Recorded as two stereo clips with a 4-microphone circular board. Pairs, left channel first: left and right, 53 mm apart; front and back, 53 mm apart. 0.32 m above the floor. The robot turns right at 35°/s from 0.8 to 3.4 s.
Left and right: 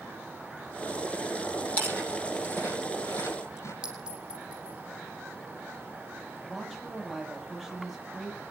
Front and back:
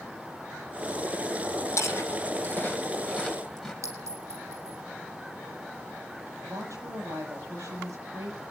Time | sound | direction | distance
1.8 | chewing | 30° left | 8 m
3.8 | a clink | 165° right | 6.5 m
6.5 | a woman speaking | 175° left | 9 m